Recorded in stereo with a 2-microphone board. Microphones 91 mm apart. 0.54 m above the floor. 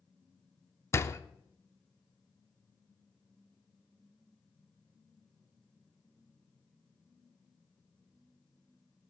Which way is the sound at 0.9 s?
30° left (ahead or behind).